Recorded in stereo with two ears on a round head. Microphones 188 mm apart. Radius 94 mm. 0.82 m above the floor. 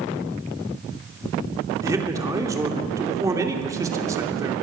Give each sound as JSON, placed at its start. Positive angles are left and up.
{"t": 1.8, "sound": "a man speaking", "side_deg": -15, "distance_m": 2.5}